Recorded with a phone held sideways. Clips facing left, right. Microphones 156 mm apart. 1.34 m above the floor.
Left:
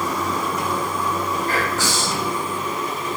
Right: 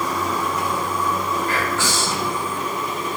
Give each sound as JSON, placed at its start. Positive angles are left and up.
{"t": 1.5, "sound": "whispering", "side_deg": 40, "distance_m": 1.1}